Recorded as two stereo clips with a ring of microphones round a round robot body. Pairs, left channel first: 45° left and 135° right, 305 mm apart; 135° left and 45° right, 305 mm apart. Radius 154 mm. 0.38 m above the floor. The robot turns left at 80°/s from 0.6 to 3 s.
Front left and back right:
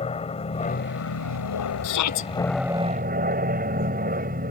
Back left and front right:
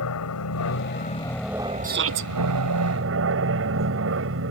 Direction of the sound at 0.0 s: 110° left.